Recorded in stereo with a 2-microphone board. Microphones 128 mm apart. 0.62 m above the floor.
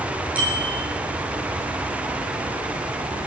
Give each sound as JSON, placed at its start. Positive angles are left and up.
{"t": 0.3, "sound": "a bicycle bell", "side_deg": -10, "distance_m": 7.0}